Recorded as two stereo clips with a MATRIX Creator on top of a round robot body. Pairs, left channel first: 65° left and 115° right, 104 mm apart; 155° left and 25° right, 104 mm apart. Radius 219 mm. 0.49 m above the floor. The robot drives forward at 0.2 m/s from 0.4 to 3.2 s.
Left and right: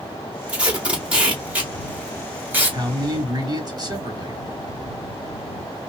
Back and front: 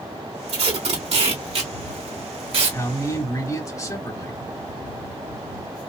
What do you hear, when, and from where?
0.5 s tape being pulled: 30° right, 2 m; by 2.8 s 40° right, 1.7 m
2.7 s a man speaking: 150° right, 2.0 m